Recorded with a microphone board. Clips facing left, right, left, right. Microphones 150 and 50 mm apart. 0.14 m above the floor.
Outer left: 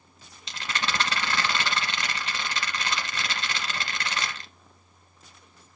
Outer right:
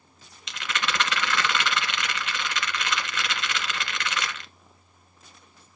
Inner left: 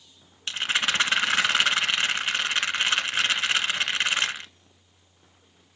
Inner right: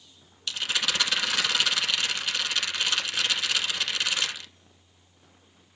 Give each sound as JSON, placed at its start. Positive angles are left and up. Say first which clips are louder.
{"t": 0.5, "sound": "a rattle", "louder": "outer right 1 dB, inner left 3 dB", "side_deg": 35, "distance_m": 1.3}